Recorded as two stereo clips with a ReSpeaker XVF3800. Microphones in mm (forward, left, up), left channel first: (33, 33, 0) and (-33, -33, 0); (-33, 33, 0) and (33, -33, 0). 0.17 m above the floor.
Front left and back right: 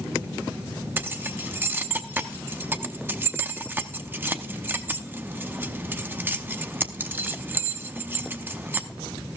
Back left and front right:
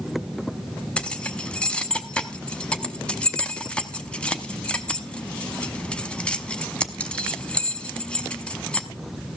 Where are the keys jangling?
160° right, 0.7 m.